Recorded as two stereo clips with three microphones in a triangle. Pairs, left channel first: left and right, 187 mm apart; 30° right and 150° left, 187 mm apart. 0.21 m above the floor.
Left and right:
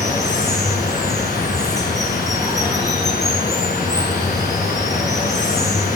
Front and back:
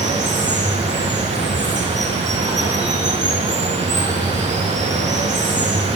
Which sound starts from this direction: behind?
Running water, at 0.0 s.